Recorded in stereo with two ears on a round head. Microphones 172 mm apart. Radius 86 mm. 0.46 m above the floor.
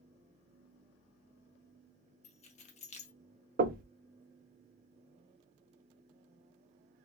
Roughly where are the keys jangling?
Left.